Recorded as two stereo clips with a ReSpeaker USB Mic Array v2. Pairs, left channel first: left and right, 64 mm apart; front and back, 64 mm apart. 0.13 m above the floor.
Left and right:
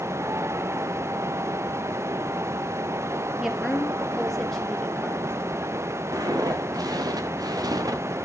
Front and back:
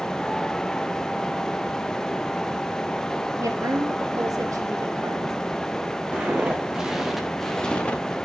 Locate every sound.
3.4 s a woman speaking: 175° right, 2 m; by 5.3 s 160° left, 3 m
6.1 s footsteps: 110° right, 3 m; by 8.2 s 60° right, 1.8 m